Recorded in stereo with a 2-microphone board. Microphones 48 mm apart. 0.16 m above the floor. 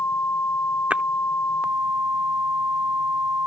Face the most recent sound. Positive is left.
turn(degrees=-30)  # may be behind; listen again after turning